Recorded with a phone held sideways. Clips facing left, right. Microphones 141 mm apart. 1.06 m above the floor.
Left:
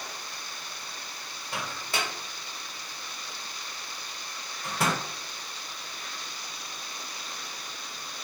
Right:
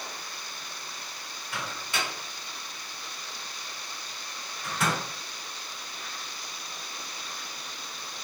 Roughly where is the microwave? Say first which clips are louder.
Left 1 dB; left.